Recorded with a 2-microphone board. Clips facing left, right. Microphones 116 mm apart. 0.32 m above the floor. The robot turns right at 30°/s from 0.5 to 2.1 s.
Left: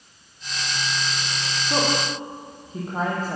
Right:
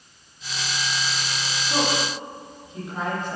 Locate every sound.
1.7 s a woman speaking: 25° left (ahead or behind), 9.5 m; by 3.4 s 40° left (ahead or behind), 9.5 m